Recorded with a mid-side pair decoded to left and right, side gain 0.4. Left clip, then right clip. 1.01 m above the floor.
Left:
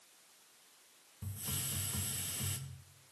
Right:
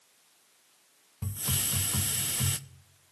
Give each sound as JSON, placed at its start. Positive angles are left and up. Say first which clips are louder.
{"t": 1.2, "sound": "a hiss", "louder": "right 10 dB", "azimuth_deg": -70, "distance_m": 0.6}